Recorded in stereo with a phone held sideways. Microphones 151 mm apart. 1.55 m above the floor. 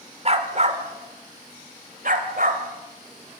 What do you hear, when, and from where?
0.2 s a dog barking: 45° right (ahead or behind), 1.8 m; by 3.4 s 70° right (ahead or behind), 3.5 m